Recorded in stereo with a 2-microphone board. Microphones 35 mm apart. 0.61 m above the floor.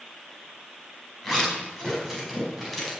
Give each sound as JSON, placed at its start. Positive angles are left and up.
{"t": 1.2, "sound": "a zipper", "side_deg": 5, "distance_m": 5.0}